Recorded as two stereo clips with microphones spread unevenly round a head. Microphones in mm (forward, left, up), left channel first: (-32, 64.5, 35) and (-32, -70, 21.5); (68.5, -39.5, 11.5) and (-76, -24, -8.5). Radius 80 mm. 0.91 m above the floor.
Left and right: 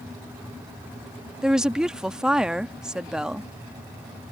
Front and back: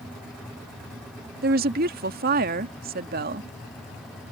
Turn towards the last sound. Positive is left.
turn(degrees=-175)